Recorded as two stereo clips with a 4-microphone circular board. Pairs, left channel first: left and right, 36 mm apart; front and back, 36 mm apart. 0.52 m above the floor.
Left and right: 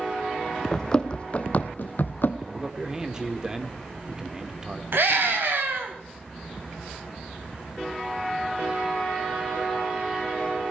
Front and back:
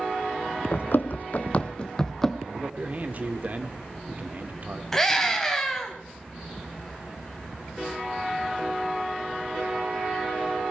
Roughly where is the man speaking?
Behind right.